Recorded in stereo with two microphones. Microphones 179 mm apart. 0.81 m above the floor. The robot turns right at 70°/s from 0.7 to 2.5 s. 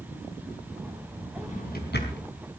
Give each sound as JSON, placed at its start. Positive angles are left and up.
{"t": 1.4, "sound": "a drawer", "side_deg": 35, "distance_m": 4.0}